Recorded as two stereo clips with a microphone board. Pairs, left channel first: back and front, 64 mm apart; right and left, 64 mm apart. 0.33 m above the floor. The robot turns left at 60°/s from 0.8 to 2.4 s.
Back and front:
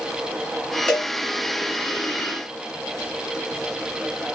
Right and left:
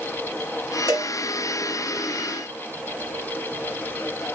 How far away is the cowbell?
About 5 m.